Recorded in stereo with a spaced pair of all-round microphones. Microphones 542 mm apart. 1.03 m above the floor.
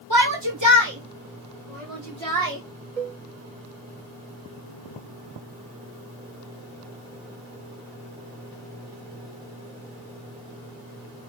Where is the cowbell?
70° right (ahead or behind), 1.9 m.